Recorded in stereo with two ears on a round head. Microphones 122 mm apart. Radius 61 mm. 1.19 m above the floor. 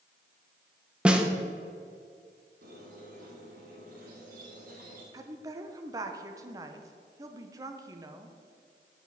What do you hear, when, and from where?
1.1 s a snare drum: 5° right (ahead or behind), 0.9 m
2.6 s a squeak: 70° right (ahead or behind), 3 m
5.1 s a woman speaking: 25° right (ahead or behind), 0.8 m